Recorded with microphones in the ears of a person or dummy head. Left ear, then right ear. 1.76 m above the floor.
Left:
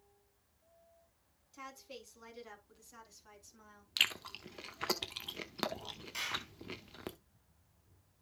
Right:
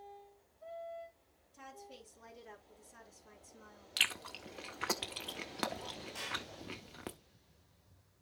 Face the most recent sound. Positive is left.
turn(degrees=70)  # may be behind; listen again after turning